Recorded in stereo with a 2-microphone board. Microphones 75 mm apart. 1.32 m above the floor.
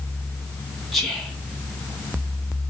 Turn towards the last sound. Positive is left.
turn(degrees=5)  # may be behind; listen again after turning